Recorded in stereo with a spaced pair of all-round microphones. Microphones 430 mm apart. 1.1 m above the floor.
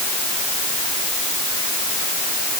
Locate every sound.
Only background noise.